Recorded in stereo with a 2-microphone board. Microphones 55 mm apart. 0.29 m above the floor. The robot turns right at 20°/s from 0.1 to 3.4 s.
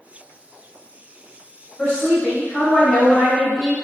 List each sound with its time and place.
1.8 s a woman speaking: 135° left, 1.1 m; by 3.8 s 165° left, 1.1 m